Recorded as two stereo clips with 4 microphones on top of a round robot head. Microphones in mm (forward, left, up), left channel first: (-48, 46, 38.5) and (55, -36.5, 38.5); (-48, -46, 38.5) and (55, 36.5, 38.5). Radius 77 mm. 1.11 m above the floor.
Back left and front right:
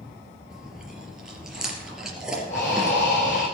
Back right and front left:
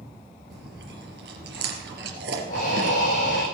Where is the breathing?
Straight behind, 9 m.